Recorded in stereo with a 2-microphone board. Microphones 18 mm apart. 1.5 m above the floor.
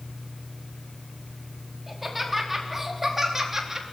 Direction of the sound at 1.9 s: 5° right (ahead or behind).